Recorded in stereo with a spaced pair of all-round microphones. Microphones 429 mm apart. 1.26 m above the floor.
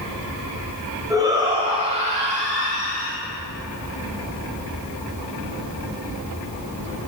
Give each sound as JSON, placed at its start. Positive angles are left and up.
{"t": 1.1, "sound": "a shout", "side_deg": -10, "distance_m": 5.5}